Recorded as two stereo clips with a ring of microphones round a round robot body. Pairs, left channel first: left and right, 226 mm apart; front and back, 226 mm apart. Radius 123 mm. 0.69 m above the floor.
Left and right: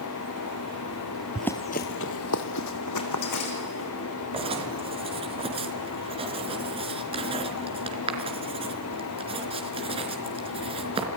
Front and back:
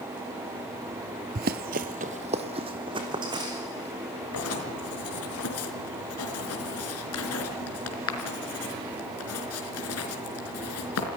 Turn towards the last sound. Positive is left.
turn(degrees=-25)